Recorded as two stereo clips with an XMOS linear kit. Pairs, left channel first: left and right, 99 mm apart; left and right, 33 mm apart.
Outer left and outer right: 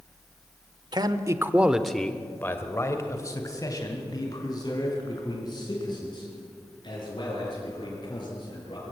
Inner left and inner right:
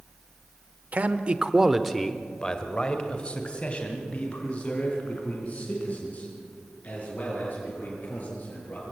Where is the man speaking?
45° right (ahead or behind), 1.1 m; by 8.9 s 50° left (ahead or behind), 8 m.